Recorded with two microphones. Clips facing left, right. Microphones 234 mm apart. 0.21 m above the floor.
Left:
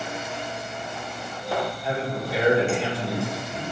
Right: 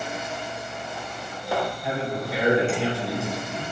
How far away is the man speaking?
About 1.7 m.